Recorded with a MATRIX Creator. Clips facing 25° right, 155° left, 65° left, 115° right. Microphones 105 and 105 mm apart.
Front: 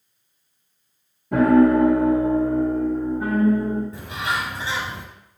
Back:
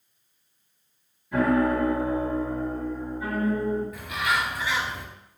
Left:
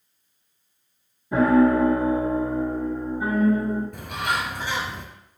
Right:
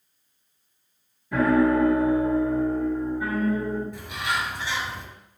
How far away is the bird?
About 2.5 m.